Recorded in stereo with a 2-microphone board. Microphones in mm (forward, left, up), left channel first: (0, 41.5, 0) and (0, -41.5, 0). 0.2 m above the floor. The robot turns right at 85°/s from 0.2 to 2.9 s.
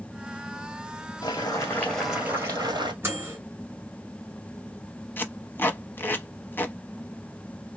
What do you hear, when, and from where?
1.2 s boiling: 110° left, 1.6 m; by 2.9 s 110° right, 1.6 m
3.0 s a microwave: 30° right (ahead or behind), 1.7 m
5.2 s tape being pulled: 25° left (ahead or behind), 0.7 m